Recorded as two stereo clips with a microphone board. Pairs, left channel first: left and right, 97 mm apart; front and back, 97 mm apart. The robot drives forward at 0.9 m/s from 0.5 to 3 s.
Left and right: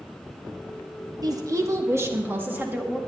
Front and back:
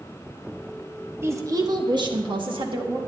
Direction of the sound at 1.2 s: 120° right.